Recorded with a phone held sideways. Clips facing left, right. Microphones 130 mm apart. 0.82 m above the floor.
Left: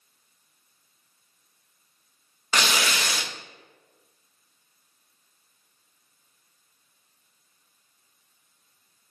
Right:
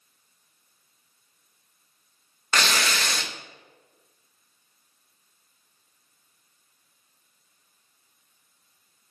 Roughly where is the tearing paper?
Centre.